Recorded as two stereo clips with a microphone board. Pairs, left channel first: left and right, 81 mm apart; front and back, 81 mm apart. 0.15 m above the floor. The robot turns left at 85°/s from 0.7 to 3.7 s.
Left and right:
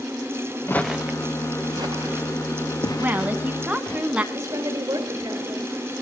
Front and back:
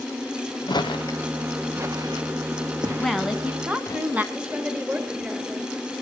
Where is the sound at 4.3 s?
120° right, 2.5 m.